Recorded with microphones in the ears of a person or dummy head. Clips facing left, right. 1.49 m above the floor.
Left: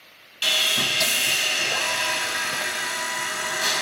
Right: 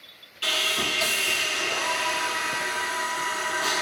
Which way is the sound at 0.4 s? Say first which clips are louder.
Even; 75° left (ahead or behind).